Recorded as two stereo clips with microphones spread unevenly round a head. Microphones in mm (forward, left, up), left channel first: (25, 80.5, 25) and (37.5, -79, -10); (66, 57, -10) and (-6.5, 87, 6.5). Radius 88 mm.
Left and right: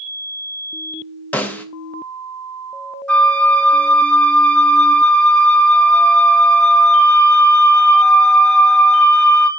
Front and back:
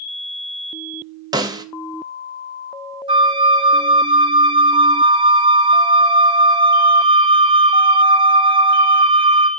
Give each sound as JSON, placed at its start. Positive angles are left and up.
{"t": 1.3, "sound": "a snare drum", "azimuth_deg": 165, "distance_m": 0.7}
{"t": 3.1, "sound": "a flute", "azimuth_deg": -175, "distance_m": 0.8}